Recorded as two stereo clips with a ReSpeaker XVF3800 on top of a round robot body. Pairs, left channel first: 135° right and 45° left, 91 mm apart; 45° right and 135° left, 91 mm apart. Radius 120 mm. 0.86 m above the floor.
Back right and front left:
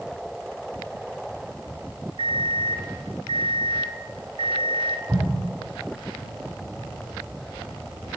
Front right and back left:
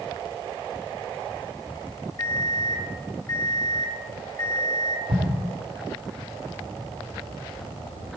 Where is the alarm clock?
15° left, 1.5 m.